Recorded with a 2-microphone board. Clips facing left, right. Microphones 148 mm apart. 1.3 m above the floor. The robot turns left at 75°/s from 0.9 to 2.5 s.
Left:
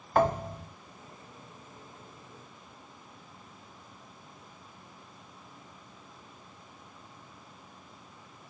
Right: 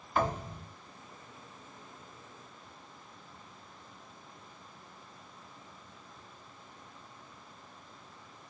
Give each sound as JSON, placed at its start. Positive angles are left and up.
{"t": 0.1, "sound": "a thud", "side_deg": 60, "distance_m": 1.9}